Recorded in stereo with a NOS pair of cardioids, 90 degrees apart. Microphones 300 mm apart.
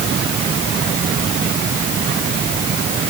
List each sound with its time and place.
Only background noise.